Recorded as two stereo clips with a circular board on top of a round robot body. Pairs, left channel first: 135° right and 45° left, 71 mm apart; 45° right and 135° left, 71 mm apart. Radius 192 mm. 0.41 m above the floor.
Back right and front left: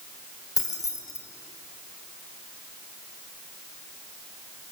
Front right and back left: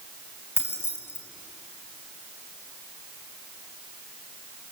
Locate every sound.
0.6 s keys jangling: 95° right, 3 m